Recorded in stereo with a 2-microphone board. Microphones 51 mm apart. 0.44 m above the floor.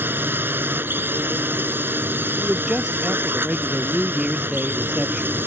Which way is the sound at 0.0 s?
45° right (ahead or behind).